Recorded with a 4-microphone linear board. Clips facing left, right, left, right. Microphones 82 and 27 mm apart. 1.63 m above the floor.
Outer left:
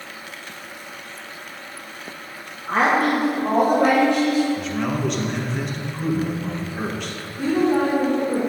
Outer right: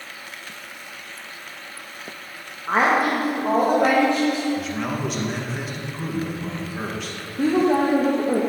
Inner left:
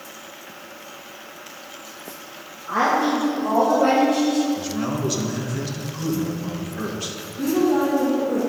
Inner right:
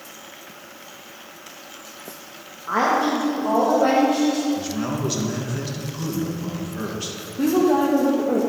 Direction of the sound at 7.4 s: 75° right (ahead or behind).